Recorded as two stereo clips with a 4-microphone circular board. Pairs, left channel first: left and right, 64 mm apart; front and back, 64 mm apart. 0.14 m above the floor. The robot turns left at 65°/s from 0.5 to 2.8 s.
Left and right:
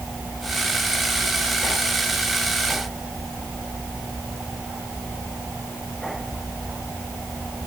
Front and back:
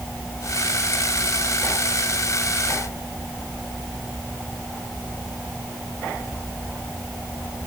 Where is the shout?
I don't hear a shout.